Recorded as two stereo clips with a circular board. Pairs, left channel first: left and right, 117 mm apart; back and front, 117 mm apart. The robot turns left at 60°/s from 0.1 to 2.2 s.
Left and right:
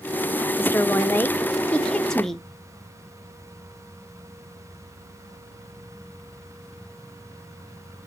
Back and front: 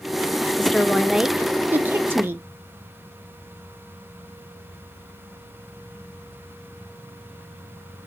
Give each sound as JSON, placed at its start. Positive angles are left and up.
{"t": 0.6, "sound": "a woman speaking", "azimuth_deg": 110, "distance_m": 0.6}